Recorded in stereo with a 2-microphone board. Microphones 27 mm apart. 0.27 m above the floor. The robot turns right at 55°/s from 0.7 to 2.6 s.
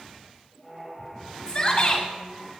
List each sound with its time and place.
1.5 s a shout: 45° left, 1.7 m; by 2.0 s 75° left, 1.7 m